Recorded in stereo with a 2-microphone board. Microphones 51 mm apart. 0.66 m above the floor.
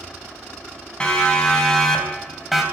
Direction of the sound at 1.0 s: 15° left (ahead or behind).